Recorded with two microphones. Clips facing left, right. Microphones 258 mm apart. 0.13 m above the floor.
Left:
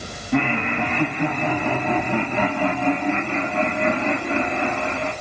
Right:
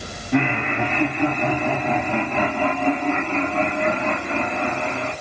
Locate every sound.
0.3 s laughter: centre (ahead or behind), 5 m; by 5.1 s 15° left (ahead or behind), 7.5 m